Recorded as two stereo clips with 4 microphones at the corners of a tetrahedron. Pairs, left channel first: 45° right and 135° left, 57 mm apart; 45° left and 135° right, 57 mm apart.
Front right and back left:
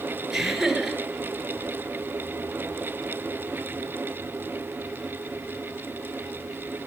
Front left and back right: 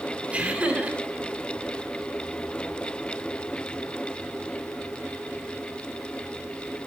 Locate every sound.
0.3 s laughter: 150° right, 1.6 m